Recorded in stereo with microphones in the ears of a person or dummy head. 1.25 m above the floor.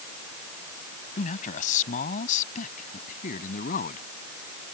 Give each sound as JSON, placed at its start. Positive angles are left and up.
{"t": 1.2, "sound": "a man speaking", "side_deg": 45}